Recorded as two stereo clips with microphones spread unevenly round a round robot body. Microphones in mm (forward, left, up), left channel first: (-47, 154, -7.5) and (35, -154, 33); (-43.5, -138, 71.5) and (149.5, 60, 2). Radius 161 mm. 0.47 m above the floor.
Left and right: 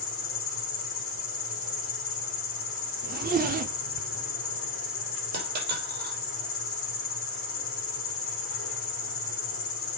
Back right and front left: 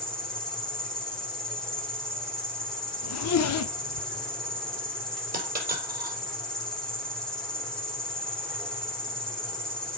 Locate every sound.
0.0 s an insect: 125° left, 2.5 m
3.0 s a zipper: 135° right, 1.0 m
5.3 s a dropped coin: 15° right, 6 m